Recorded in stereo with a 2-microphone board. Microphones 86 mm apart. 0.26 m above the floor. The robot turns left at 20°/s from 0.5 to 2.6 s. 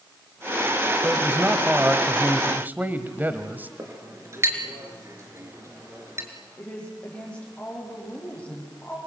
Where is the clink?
35° right (ahead or behind), 3.5 m.